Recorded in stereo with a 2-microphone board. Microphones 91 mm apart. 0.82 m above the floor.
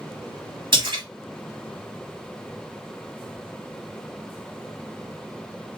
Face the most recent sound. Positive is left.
turn(degrees=-55)  # may be behind; listen again after turning